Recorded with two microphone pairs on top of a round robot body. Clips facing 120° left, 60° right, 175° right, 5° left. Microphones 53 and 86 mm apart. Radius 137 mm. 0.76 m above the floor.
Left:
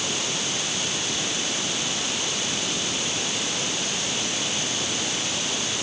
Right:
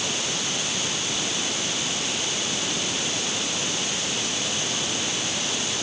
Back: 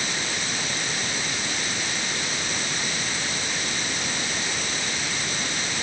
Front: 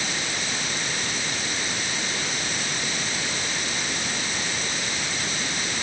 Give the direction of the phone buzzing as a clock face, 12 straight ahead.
No phone buzzing in this recording.